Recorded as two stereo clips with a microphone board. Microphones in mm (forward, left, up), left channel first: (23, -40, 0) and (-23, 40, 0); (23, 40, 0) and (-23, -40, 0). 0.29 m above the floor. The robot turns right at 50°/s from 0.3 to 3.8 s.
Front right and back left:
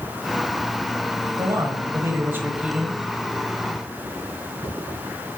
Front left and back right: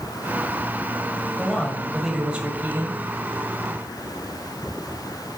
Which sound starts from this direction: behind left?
A man speaking, at 1.4 s.